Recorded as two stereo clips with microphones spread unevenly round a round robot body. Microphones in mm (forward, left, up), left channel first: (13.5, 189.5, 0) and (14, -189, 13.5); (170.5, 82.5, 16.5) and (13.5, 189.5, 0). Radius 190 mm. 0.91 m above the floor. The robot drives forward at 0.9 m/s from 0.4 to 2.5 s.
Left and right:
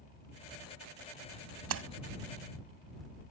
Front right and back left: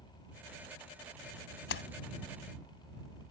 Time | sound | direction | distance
1.7 | a splash | 35° right | ?